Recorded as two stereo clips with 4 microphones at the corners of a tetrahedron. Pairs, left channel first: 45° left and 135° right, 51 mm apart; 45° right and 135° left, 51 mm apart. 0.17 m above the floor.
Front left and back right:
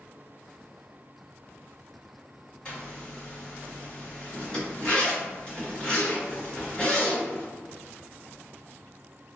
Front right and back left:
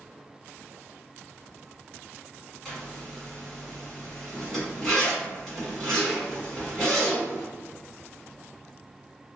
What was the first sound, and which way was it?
A zipper, 25° left.